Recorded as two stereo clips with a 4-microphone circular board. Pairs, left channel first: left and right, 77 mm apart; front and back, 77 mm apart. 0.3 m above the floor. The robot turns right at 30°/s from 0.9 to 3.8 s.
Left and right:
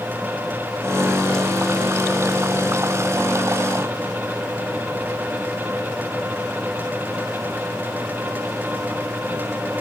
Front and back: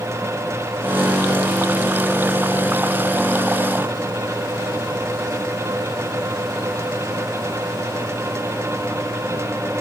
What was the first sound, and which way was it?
Only background noise.